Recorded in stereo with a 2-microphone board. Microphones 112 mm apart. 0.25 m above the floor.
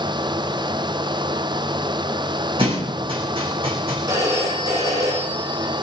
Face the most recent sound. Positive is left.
turn(degrees=-30)  # may be behind; listen again after turning